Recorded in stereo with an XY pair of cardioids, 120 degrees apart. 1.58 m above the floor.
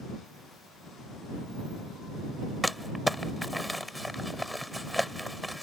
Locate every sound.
2.6 s crumpling: straight ahead